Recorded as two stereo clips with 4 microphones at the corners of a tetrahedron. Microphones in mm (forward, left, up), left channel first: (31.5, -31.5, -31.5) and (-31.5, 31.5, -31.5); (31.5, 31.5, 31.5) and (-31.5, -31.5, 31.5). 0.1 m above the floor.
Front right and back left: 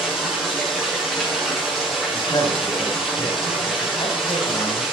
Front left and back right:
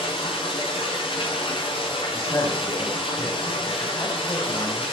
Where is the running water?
45° left, 8 m.